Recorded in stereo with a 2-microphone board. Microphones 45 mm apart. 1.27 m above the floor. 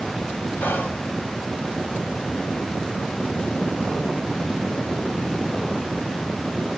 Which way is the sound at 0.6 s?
55° left (ahead or behind).